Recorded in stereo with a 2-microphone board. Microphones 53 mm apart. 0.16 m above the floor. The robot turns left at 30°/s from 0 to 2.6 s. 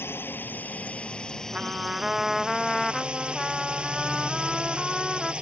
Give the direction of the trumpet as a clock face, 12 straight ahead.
5 o'clock.